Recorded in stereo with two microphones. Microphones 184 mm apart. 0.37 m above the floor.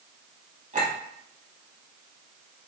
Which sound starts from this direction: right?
A clink, at 0.7 s.